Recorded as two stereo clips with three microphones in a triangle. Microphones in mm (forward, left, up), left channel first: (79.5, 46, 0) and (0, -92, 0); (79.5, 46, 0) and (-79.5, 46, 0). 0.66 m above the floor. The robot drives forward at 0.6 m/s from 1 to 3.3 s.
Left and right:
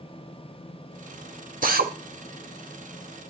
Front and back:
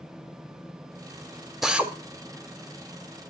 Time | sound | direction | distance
1.6 | a drill | 90° right | 1.0 m